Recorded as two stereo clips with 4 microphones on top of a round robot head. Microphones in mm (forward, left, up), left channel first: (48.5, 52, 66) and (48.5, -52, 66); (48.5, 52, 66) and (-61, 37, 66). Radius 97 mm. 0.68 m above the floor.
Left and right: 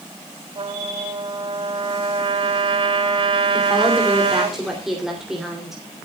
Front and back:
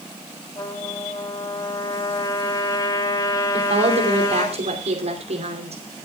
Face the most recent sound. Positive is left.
turn(degrees=-175)